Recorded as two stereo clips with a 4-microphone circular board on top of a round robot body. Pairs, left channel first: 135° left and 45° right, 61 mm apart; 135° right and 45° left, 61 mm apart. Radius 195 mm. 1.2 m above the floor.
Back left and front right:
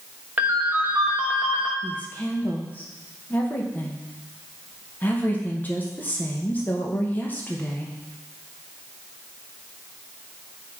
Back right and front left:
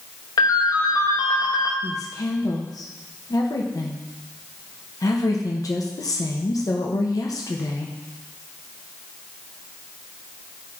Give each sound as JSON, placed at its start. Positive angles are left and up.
{"t": 0.4, "sound": "a ringtone", "azimuth_deg": -110, "distance_m": 0.9}
{"t": 1.8, "sound": "a woman speaking", "azimuth_deg": -160, "distance_m": 1.1}